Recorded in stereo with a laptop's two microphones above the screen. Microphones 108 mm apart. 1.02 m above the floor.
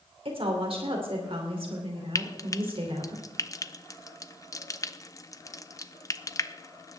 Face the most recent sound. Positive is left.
turn(degrees=30)  # may be behind; listen again after turning